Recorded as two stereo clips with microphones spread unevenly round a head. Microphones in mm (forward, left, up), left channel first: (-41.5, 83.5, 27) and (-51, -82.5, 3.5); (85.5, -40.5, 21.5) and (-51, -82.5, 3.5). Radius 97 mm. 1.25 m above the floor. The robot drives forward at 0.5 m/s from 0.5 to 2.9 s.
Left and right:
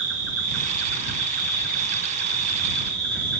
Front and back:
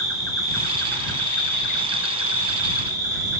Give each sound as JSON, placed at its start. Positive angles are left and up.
{"t": 0.0, "sound": "an insect", "azimuth_deg": -40, "distance_m": 1.8}